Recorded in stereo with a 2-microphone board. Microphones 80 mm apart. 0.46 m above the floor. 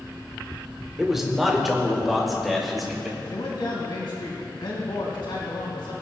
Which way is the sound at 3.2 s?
70° left (ahead or behind).